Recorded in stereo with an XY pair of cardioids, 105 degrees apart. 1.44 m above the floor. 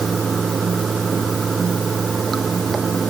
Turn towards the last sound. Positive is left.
turn(degrees=-30)